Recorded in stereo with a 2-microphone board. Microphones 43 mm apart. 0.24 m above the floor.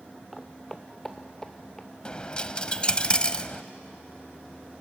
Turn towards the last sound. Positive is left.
turn(degrees=25)  # may be behind; listen again after turning